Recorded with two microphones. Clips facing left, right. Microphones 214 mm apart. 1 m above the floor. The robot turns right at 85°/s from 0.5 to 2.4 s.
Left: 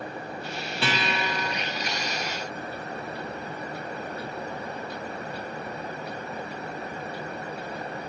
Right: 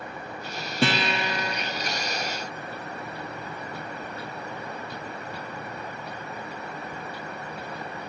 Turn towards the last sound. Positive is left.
turn(degrees=60)